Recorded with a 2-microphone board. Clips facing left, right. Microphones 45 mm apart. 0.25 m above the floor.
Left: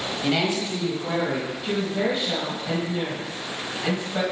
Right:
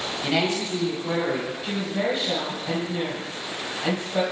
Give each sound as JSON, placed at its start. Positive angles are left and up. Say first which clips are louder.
{"t": 0.2, "sound": "a woman speaking", "louder": "even", "side_deg": 5, "distance_m": 1.1}
{"t": 1.6, "sound": "a woman speaking", "louder": "left 3 dB", "side_deg": 0, "distance_m": 1.3}